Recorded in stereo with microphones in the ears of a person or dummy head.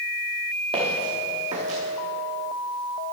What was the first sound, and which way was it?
Footsteps, 25° right (ahead or behind).